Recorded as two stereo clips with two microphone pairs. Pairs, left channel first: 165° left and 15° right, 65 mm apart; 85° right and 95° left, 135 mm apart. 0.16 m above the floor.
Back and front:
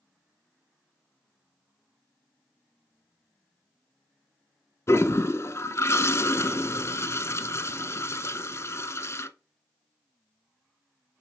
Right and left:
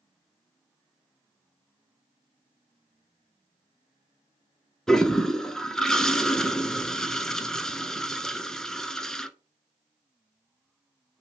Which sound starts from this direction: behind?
A toilet flushing, at 4.9 s.